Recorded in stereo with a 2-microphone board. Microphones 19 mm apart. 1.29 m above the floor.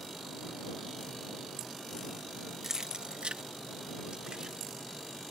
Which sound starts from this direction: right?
Keys jangling, at 2.6 s.